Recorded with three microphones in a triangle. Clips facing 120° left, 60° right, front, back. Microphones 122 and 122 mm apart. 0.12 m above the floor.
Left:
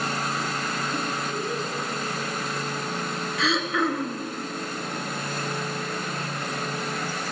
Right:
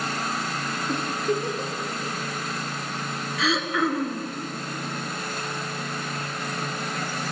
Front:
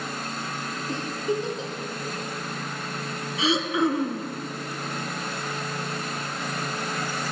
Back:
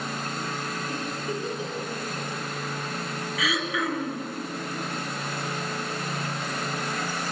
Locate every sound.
0.9 s a giggle: 65° right, 2.5 m
3.4 s throat clearing: 30° left, 1.0 m